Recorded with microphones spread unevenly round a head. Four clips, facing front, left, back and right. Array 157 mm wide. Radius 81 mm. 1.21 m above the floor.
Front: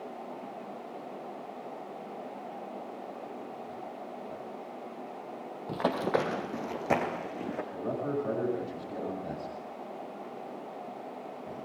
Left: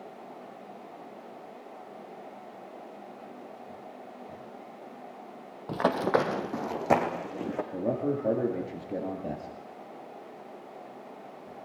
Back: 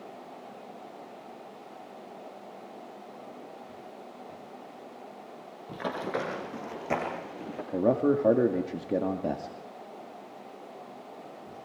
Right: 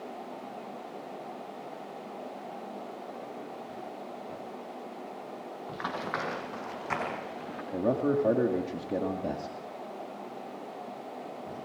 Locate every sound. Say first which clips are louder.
5.7 s running footsteps: left 10 dB, front 4 dB; 80° left, 2.0 m; by 7.6 s 95° left, 3.5 m
7.7 s a man speaking: right 4 dB, back 11 dB; straight behind, 1.8 m